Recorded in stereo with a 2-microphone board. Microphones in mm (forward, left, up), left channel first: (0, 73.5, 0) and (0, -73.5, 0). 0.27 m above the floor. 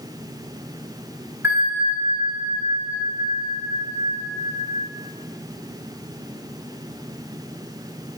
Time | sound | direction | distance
1.4 | a bell | 15° right (ahead or behind) | 0.7 m